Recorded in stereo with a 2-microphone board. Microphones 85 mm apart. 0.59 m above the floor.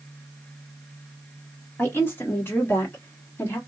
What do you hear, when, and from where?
1.8 s a woman speaking: 25° left (ahead or behind), 1.5 m